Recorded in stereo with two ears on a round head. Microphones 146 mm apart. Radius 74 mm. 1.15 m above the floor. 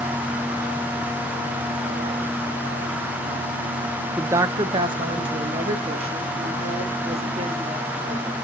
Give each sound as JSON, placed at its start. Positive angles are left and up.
{"t": 4.2, "sound": "a woman speaking", "side_deg": -10, "distance_m": 0.5}